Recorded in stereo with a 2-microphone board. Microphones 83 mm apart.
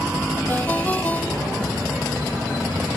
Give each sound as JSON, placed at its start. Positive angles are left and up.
{"t": 0.5, "sound": "a ringtone", "side_deg": 20}